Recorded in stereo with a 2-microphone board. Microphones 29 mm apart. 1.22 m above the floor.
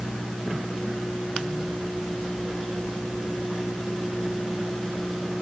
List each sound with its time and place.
Only background noise.